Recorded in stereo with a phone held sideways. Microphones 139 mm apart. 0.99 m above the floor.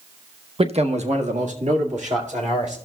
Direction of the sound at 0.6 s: 45° right (ahead or behind).